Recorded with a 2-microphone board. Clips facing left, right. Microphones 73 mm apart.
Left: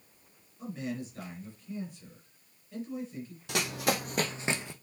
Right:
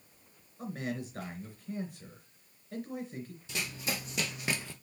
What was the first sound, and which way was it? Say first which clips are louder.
A man speaking: even; 65° right (ahead or behind).